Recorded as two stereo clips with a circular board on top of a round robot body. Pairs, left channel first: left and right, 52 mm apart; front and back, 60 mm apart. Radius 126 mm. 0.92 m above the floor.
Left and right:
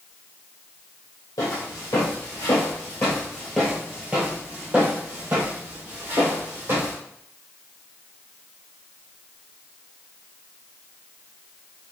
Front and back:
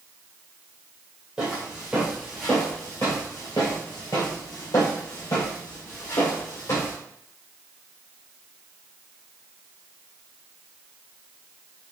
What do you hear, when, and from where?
1.4 s footsteps: 110° left, 1.3 m; by 7.0 s 45° right, 2 m